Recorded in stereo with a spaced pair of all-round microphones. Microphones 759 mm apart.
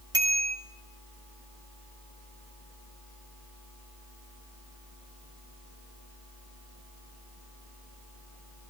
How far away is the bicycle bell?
About 6 m.